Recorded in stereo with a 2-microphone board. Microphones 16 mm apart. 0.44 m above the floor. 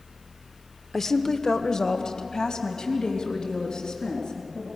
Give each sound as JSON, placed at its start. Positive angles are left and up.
{"t": 0.9, "sound": "a woman speaking", "side_deg": 20, "distance_m": 0.7}